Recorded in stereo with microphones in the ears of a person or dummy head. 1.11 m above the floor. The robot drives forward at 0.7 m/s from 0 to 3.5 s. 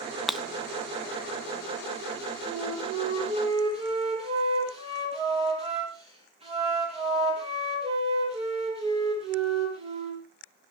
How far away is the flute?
About 5.5 m.